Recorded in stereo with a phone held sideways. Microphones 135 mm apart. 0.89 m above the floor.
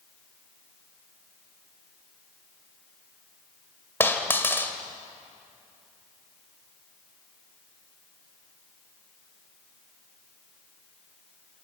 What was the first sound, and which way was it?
A dropped coin, 15° left (ahead or behind).